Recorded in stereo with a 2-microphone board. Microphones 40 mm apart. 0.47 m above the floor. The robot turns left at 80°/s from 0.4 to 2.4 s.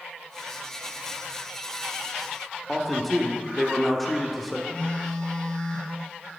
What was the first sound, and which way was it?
A man speaking, centre (ahead or behind).